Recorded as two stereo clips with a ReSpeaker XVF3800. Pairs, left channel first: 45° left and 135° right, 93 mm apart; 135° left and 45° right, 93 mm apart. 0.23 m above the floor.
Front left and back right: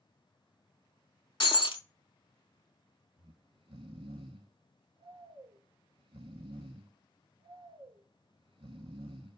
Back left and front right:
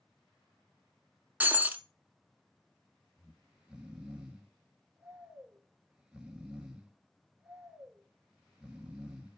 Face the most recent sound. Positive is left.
turn(degrees=-125)